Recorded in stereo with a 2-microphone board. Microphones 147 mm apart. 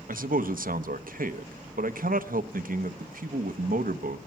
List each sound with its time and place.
0.1 s a man speaking: 70° right (ahead or behind), 0.9 m